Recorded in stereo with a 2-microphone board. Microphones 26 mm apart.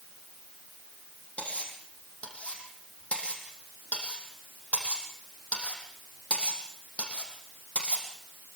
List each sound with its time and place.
1.4 s cutlery clinking: 50° left (ahead or behind), 6 m